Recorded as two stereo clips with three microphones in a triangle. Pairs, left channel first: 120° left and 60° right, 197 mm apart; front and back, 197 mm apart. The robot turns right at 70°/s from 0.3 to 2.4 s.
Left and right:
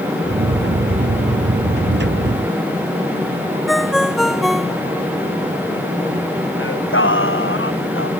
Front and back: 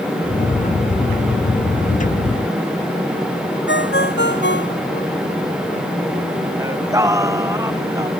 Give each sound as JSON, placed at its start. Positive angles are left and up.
{"t": 3.7, "sound": "a ringtone", "azimuth_deg": 30}
{"t": 6.6, "sound": "singing", "azimuth_deg": 105}